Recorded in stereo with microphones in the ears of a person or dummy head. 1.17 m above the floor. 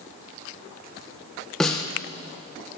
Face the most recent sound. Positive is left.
turn(degrees=5)  # may be behind; listen again after turning